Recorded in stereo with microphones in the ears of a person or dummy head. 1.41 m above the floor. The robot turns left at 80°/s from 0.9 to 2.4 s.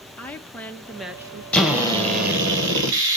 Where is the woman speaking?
10° left, 0.9 m; by 1.4 s 35° right, 0.9 m.